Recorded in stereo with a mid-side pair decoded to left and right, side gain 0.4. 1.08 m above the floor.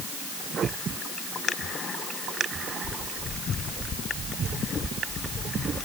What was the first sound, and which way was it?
Only background noise.